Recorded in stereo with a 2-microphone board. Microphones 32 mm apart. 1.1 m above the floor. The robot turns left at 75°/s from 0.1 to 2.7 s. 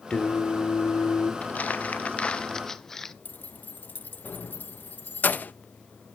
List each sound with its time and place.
0.1 s singing: 150° left, 2 m; by 1.3 s 55° left, 2 m
1.4 s crumpling: 110° left, 0.7 m; by 3.1 s 10° left, 0.7 m
3.2 s keys jangling: 55° left (ahead or behind), 0.8 m